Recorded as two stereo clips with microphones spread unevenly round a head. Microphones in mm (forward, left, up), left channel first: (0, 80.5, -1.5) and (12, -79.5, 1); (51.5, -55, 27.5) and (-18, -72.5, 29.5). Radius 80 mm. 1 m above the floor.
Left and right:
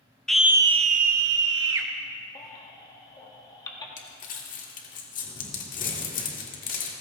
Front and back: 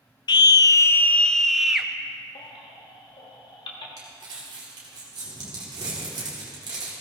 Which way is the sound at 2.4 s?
25° left.